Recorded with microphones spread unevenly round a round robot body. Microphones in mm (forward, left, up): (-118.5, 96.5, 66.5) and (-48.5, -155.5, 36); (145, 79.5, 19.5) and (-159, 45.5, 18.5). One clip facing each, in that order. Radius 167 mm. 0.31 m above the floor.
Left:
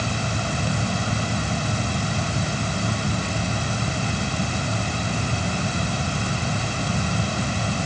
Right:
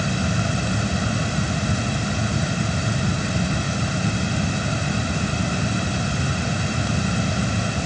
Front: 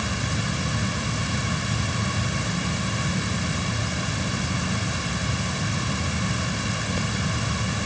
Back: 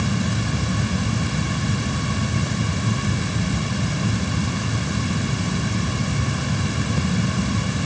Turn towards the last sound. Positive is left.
No sound to turn to.